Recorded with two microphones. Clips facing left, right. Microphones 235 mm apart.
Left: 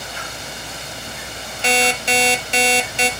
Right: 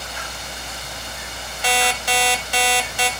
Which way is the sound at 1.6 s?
25° left (ahead or behind).